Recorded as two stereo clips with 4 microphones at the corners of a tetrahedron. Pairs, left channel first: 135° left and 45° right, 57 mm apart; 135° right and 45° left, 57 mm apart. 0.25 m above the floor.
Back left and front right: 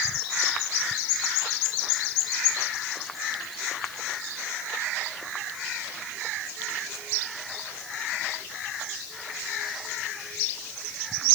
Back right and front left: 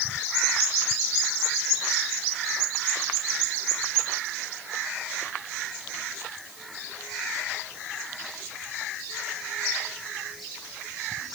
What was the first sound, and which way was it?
Only background noise.